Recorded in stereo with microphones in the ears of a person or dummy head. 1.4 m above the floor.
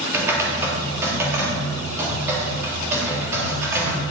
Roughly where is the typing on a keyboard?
Centre.